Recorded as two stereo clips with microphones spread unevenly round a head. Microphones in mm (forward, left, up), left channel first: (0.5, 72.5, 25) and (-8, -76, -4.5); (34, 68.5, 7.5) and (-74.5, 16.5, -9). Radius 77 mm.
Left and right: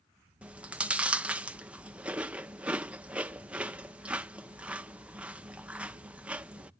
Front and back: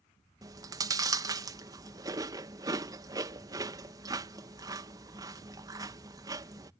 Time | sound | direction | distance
0.4 | chewing | 150° right | ?